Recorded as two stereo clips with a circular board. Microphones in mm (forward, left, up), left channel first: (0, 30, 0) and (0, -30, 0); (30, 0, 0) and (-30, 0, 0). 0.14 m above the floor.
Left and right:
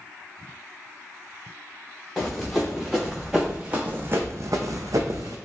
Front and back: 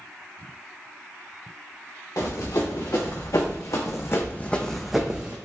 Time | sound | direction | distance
2.2 | running footsteps | straight ahead | 1.5 m